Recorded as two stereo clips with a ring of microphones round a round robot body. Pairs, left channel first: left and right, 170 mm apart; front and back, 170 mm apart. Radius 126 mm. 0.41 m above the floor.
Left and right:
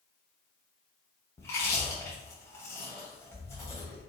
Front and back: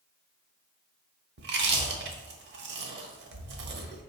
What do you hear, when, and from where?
1.4 s chewing: 170° left, 0.7 m